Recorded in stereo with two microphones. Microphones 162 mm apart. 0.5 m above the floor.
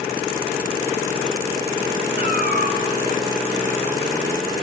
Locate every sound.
2.2 s a cat meowing: 65° right (ahead or behind), 3 m